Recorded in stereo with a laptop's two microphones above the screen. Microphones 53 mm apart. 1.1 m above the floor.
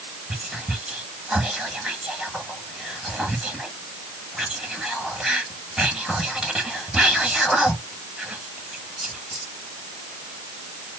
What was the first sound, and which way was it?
Whispering, 10° right (ahead or behind).